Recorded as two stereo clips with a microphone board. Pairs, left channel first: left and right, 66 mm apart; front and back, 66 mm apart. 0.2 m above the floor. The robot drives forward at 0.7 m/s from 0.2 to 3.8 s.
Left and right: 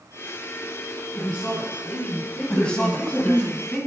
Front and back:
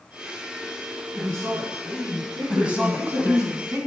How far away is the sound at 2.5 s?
About 1.0 m.